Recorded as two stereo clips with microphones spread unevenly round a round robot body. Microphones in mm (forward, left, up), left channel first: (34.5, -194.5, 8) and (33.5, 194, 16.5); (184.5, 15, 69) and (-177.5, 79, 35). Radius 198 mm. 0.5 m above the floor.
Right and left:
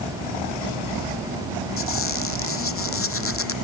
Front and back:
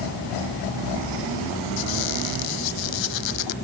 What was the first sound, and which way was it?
A squeak, 30° right.